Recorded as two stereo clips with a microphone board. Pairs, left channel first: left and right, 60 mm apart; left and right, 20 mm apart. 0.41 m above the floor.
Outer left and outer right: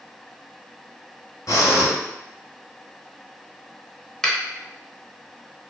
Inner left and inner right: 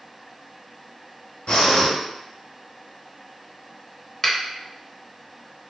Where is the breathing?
70° left (ahead or behind), 1.0 m.